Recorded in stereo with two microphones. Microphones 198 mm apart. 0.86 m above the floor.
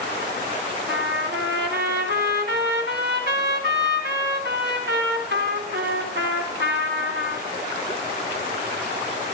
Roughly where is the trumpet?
Right.